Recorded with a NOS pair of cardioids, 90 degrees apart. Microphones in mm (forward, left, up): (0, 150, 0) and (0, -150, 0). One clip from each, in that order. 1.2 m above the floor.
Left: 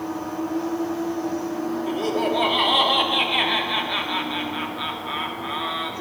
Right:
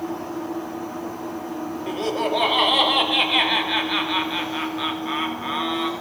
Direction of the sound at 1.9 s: 20° right.